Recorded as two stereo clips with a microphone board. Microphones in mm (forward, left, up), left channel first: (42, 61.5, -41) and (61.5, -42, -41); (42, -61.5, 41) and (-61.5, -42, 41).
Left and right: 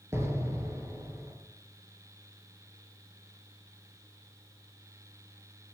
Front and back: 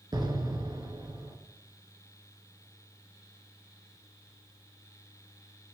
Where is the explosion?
140° right, 1.2 m.